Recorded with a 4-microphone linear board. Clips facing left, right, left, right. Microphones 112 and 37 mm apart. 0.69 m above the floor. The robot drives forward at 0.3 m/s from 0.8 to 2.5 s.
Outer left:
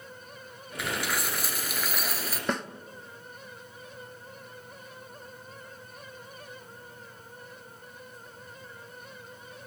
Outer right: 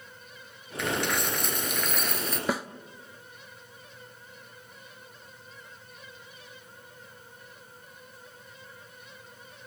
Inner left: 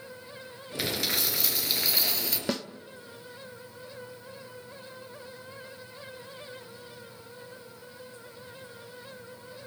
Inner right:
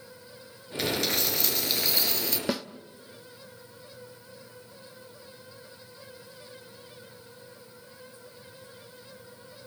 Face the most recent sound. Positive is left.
turn(degrees=-5)  # may be behind; listen again after turning